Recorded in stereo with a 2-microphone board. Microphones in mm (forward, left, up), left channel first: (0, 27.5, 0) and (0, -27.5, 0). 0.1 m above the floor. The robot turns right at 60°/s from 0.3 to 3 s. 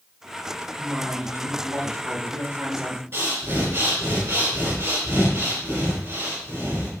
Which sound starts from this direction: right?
Breathing, at 3.1 s.